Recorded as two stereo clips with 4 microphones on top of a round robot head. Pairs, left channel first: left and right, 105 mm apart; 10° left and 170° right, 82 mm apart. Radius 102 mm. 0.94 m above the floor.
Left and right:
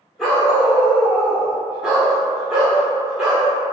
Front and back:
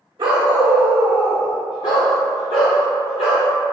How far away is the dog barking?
About 0.7 m.